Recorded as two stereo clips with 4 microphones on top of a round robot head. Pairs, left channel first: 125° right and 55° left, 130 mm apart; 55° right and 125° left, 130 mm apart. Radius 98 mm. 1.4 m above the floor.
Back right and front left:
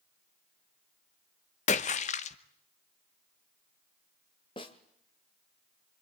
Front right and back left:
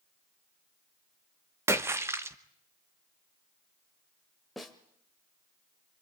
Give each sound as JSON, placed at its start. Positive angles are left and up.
{"t": 1.7, "sound": "a splash", "azimuth_deg": -165, "distance_m": 1.1}
{"t": 4.6, "sound": "a snare drum", "azimuth_deg": -145, "distance_m": 1.2}